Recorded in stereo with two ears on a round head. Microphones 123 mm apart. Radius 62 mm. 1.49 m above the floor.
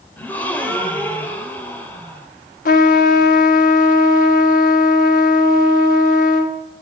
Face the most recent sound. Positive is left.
turn(degrees=70)  # may be behind; listen again after turning